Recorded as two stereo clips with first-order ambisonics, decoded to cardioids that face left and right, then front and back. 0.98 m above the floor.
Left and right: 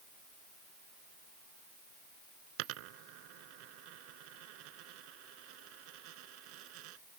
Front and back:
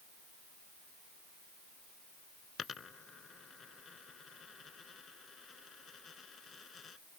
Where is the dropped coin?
70° right.